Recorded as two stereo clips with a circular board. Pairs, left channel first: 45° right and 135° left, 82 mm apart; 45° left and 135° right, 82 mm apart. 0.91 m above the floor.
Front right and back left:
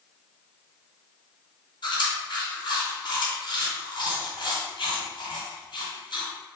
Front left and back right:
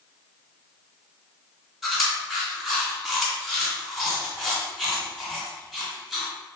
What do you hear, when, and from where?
1.8 s chewing: 40° right, 2.0 m